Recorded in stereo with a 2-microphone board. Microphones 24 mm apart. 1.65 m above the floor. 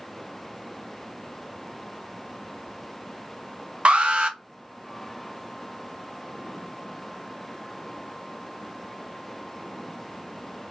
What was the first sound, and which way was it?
An alarm, 55° right (ahead or behind).